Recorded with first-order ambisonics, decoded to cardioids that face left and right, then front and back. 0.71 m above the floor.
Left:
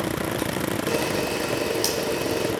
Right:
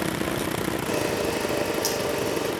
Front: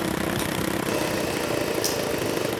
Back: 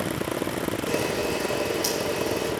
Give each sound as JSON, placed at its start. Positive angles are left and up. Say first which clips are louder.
{"t": 0.9, "sound": "a camera shutter", "louder": "left 1 dB, back 2 dB", "azimuth_deg": 75, "distance_m": 7.0}